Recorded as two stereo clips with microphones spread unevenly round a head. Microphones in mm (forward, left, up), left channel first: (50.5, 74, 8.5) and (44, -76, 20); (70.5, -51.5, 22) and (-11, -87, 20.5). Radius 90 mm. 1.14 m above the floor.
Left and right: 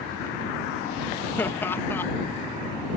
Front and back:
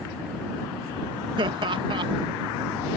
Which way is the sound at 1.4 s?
165° left.